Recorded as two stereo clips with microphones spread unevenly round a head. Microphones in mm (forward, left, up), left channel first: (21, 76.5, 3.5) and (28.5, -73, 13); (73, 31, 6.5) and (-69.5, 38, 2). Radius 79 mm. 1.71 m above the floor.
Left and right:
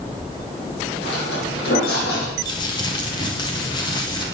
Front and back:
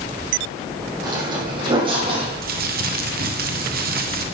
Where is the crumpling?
160° left, 1.5 m.